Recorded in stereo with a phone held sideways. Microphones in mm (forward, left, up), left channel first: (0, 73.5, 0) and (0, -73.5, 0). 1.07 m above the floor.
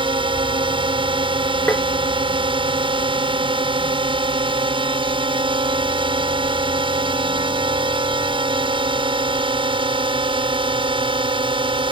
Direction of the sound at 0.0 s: 35° right (ahead or behind).